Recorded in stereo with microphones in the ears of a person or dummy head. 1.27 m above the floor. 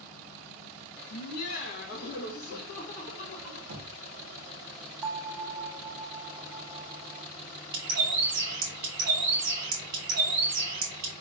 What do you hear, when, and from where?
1.1 s laughter: 60° left (ahead or behind), 0.9 m; by 3.6 s 50° left (ahead or behind), 2 m
3.7 s knocking: 70° right (ahead or behind), 1.0 m
5.0 s a bell: 15° right (ahead or behind), 1.5 m
7.7 s a bird: 45° right (ahead or behind), 0.7 m